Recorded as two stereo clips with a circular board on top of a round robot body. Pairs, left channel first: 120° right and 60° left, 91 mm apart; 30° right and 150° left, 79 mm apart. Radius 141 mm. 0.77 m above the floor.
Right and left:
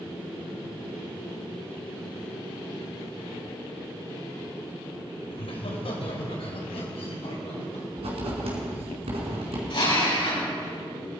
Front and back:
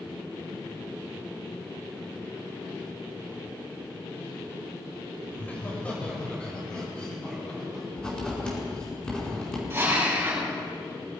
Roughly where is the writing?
Ahead left.